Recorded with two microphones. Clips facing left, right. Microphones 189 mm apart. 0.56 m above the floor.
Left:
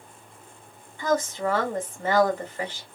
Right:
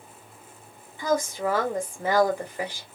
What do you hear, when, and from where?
1.0 s a woman speaking: 10° right (ahead or behind), 1.3 m